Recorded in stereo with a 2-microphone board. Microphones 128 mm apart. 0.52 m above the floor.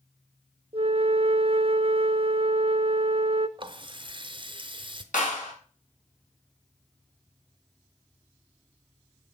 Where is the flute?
45° right (ahead or behind), 0.6 m.